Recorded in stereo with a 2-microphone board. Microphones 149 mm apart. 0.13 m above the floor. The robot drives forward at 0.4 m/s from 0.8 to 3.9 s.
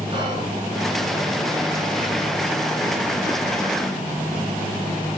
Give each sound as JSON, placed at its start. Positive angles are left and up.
{"t": 0.1, "sound": "whispering", "side_deg": -30, "distance_m": 1.6}